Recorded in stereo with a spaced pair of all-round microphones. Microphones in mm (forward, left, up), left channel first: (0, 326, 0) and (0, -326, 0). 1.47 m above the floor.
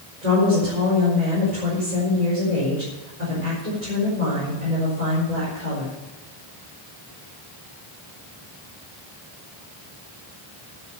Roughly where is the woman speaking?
Right.